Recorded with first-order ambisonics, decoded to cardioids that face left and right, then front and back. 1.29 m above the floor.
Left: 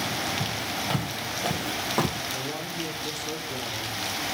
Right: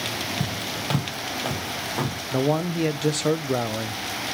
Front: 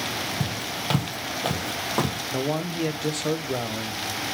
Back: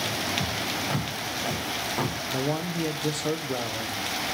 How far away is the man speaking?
About 0.6 m.